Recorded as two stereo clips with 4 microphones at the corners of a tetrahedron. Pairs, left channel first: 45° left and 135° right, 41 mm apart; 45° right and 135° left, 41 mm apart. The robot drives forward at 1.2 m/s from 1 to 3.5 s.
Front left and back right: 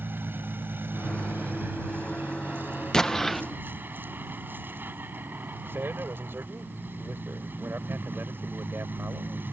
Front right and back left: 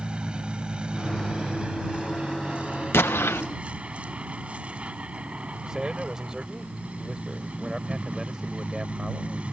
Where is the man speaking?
150° right.